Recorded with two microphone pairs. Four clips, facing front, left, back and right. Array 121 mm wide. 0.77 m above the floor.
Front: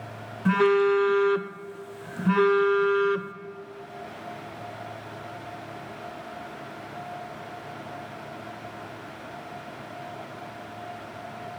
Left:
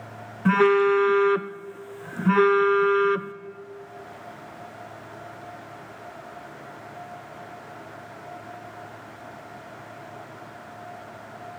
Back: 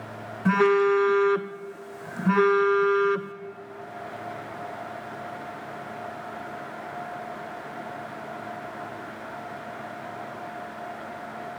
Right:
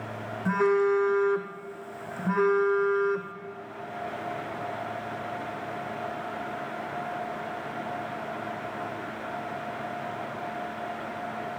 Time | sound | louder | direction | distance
0.5 | a phone buzzing | left 5 dB, even | 120° left | 0.6 m